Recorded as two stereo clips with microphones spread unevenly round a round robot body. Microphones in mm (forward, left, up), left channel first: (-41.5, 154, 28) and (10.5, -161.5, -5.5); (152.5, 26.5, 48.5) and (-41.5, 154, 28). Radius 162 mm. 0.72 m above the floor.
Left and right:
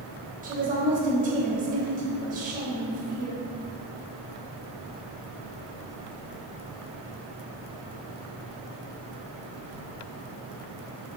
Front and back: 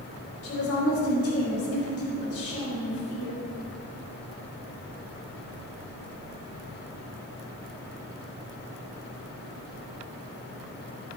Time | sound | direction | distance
0.4 | a woman speaking | 15° right | 3.5 m